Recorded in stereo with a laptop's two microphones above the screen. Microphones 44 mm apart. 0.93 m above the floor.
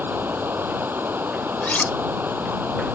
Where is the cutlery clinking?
35° left (ahead or behind).